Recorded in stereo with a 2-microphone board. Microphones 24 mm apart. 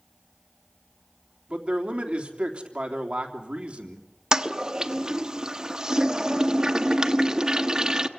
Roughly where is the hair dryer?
I don't hear a hair dryer.